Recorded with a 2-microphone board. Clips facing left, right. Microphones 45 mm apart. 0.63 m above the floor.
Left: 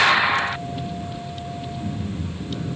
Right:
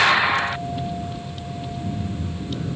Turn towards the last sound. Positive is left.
turn(degrees=75)  # may be behind; listen again after turning